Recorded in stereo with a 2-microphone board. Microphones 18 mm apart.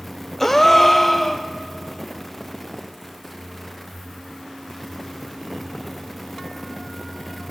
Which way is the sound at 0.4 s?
15° left (ahead or behind).